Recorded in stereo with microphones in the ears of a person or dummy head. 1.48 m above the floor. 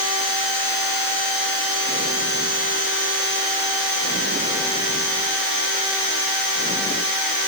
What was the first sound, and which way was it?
Only background noise.